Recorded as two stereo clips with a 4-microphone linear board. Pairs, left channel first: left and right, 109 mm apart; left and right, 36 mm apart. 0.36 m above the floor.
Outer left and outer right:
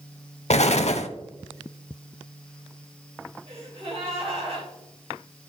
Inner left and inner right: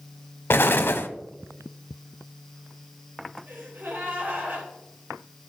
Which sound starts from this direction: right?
A gasp, at 3.5 s.